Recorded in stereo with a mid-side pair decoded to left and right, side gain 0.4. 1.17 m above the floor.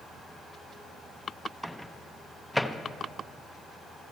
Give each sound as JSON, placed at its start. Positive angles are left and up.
{"t": 1.6, "sound": "a microwave", "azimuth_deg": 5, "distance_m": 0.5}